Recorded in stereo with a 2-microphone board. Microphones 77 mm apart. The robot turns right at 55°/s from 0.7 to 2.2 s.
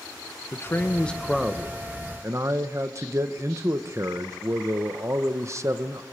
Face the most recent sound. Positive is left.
turn(degrees=-135)